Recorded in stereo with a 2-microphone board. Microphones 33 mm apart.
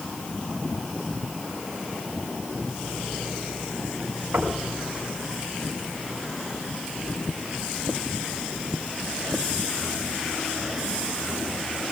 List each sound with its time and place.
4.3 s knocking: 75° right (ahead or behind), 6.5 m